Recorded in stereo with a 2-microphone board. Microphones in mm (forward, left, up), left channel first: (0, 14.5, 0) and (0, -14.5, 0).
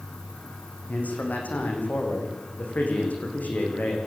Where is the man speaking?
70° left (ahead or behind), 9.5 m.